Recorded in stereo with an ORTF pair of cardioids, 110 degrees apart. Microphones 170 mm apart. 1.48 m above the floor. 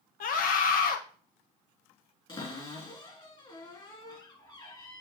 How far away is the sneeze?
No sneeze in this recording.